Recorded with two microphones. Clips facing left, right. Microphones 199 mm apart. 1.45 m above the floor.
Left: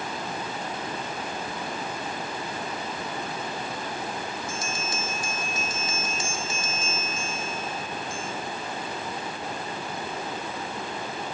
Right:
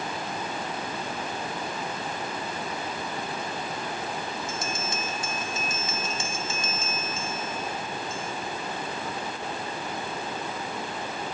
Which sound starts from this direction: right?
A bell, at 4.5 s.